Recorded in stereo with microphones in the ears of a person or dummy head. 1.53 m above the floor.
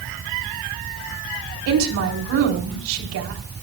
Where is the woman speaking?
75° right (ahead or behind), 4 m.